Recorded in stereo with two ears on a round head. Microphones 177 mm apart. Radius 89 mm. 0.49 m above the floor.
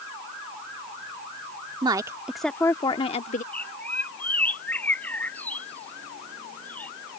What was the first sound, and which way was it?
A woman speaking, 25° right (ahead or behind).